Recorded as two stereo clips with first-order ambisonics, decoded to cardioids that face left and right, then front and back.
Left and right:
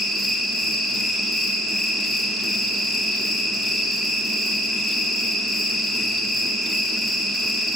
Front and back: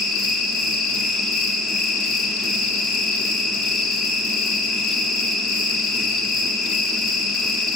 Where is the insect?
Straight ahead, 2.0 m.